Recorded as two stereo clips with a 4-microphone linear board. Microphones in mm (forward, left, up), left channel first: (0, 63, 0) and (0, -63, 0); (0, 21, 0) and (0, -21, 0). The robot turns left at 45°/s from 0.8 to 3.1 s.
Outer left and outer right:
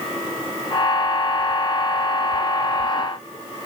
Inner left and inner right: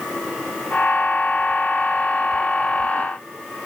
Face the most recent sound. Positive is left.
No sound to turn to.